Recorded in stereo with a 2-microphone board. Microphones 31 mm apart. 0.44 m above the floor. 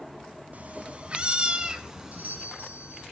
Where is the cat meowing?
50° right (ahead or behind), 1.7 m; by 2.5 s 10° right (ahead or behind), 2.5 m.